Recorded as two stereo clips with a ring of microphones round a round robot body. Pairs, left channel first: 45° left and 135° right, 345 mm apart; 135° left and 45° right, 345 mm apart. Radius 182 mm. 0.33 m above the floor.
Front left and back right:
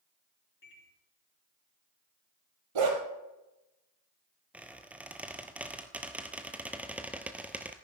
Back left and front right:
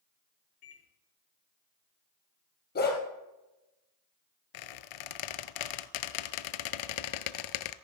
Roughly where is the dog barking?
Behind.